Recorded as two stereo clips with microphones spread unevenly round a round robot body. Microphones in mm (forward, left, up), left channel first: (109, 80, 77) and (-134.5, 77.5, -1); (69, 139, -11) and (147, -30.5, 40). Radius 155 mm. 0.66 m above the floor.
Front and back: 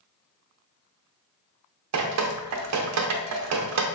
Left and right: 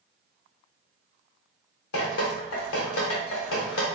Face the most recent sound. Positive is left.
turn(degrees=155)